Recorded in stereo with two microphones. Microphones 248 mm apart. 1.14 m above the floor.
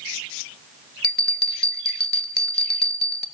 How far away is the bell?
About 0.6 m.